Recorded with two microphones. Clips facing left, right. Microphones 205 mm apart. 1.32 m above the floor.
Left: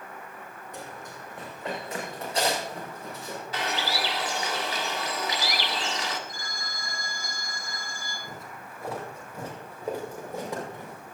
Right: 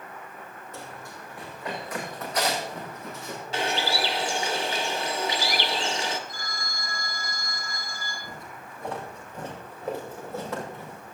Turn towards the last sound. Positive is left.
turn(degrees=20)  # may be behind; listen again after turning